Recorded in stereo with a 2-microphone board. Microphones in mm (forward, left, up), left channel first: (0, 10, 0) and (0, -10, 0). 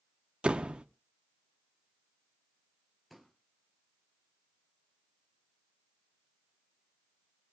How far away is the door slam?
About 0.6 m.